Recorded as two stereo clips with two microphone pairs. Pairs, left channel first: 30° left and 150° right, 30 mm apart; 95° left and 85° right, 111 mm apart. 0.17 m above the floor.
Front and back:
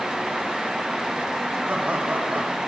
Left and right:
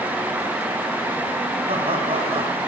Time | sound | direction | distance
1.7 | laughter | 115° right | 7.5 m